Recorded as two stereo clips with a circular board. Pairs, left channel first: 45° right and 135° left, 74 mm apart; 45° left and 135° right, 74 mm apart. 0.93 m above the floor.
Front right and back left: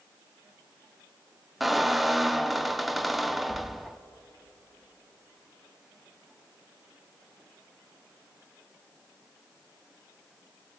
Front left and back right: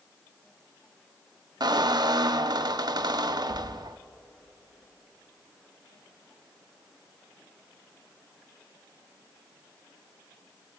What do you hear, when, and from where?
1.6 s a squeak: 135° right, 0.6 m